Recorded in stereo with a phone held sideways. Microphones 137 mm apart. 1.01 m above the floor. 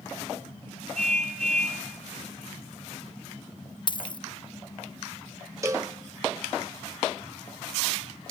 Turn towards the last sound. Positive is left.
turn(degrees=-25)  # may be behind; listen again after turning